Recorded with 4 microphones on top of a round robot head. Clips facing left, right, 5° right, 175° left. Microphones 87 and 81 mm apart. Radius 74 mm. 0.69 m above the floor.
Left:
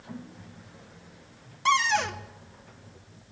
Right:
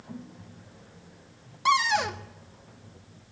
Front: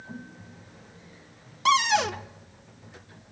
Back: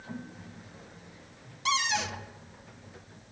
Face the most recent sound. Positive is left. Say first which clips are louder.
# even, front 8 dB
turn(degrees=-10)